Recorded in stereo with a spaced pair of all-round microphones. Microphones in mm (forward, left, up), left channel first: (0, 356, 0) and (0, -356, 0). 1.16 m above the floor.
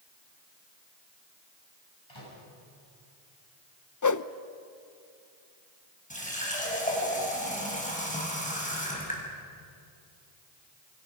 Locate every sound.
2.1 s a microwave: 45° left (ahead or behind), 9 m
4.0 s a whoosh: 30° left (ahead or behind), 0.5 m
6.1 s a running tap: 10° left (ahead or behind), 5 m